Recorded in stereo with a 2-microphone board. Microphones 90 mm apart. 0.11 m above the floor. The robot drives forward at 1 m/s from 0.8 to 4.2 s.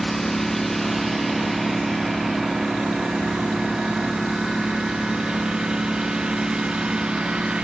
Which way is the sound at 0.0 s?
Centre (ahead or behind).